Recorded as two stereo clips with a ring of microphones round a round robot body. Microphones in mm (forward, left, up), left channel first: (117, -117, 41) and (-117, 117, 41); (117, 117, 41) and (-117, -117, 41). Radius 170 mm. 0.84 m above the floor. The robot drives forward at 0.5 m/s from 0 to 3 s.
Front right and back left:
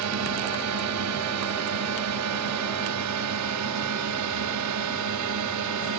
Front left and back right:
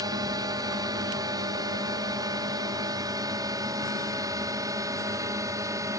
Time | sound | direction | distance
0.0 | a drone | 150° left | ?